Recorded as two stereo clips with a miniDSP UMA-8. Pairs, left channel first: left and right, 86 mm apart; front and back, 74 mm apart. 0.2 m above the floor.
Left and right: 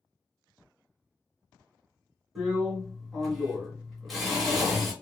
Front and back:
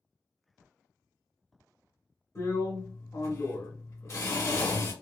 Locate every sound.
2.4 s a drill: straight ahead, 1.7 m